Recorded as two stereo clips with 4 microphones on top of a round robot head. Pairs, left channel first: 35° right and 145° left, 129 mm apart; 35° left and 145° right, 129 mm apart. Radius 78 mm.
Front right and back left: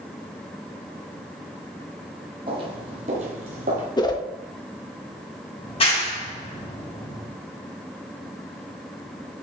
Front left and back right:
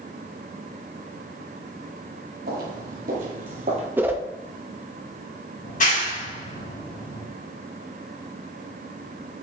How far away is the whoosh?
About 1.0 m.